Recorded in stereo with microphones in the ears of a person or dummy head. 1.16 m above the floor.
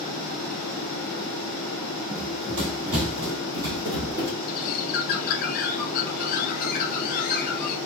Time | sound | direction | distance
2.1 | running footsteps | 50° right (ahead or behind) | 1.8 m
4.5 | a bird | 45° left (ahead or behind) | 0.8 m